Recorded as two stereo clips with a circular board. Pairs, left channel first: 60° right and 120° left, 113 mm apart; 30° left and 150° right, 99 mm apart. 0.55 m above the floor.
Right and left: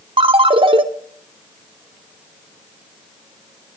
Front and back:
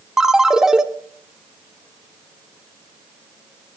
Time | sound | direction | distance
0.2 | a ringtone | 125° left | 0.8 m